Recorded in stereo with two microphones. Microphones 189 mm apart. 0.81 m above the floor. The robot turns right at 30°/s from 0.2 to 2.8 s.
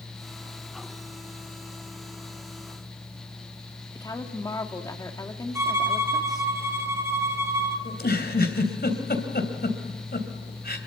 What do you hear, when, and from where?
4.0 s a woman speaking: 20° left (ahead or behind), 1.9 m
5.5 s a violin: 15° right (ahead or behind), 3 m
7.8 s a giggle: 60° left (ahead or behind), 3 m